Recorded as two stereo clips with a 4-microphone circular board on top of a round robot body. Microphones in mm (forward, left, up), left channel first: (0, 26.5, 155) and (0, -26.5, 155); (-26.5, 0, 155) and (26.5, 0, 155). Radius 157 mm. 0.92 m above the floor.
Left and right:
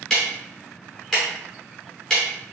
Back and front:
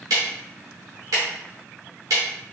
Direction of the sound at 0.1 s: 10° left.